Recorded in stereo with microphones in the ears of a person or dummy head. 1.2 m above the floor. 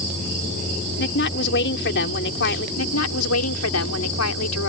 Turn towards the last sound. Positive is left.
turn(degrees=85)